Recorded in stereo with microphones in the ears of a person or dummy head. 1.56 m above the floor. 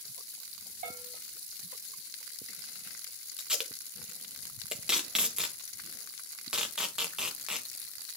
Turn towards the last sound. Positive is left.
turn(degrees=0)  # may be behind; listen again after turning